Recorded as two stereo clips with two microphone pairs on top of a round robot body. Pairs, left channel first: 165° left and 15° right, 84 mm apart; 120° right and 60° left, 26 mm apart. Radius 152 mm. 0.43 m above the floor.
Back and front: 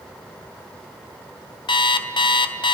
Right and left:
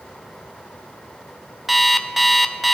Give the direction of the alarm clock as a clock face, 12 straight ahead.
7 o'clock.